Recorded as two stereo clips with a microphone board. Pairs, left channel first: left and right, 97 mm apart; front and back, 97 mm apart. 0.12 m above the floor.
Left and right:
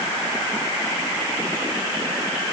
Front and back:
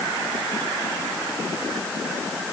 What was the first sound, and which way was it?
Only background noise.